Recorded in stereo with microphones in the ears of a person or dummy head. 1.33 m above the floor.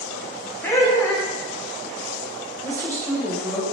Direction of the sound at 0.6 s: 15° left (ahead or behind).